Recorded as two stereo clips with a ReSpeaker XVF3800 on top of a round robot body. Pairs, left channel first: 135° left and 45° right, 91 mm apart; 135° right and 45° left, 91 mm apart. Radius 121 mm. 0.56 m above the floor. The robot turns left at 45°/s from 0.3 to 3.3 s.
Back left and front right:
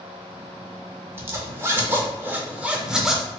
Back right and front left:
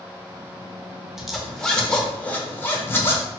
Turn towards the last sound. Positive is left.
turn(degrees=-130)